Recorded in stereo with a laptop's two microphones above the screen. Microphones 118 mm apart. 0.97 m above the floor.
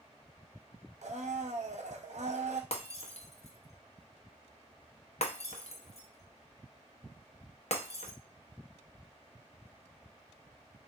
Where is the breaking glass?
60° left (ahead or behind), 0.6 m.